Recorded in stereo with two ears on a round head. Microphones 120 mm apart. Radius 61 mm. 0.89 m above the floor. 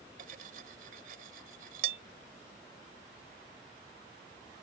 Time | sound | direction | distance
0.2 | cutlery clinking | 70° right (ahead or behind) | ?